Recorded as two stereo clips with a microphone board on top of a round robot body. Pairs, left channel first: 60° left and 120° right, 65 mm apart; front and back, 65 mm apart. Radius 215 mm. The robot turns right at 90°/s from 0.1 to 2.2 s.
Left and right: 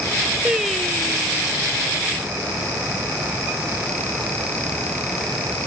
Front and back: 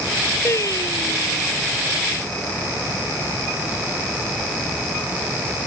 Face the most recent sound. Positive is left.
turn(degrees=110)